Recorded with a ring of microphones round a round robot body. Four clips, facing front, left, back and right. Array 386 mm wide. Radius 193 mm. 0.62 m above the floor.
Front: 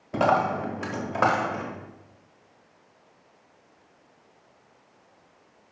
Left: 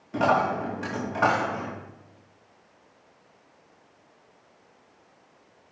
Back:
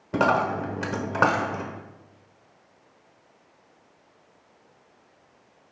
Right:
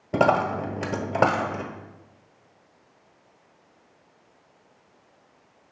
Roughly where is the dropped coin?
Behind right.